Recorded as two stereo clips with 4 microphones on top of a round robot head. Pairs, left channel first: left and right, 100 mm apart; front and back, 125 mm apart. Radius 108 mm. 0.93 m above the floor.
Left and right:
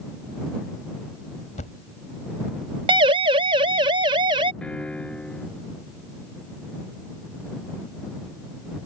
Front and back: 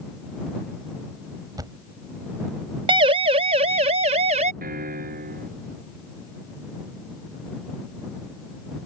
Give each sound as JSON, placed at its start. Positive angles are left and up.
{"t": 1.6, "sound": "a thud", "azimuth_deg": 120}
{"t": 2.9, "sound": "a siren", "azimuth_deg": -130}
{"t": 4.6, "sound": "a piano", "azimuth_deg": 175}